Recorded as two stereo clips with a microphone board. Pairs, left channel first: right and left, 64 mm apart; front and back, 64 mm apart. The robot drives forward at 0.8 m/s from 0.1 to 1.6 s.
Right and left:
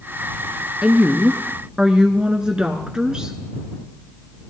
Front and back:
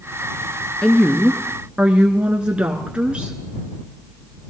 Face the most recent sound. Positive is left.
turn(degrees=145)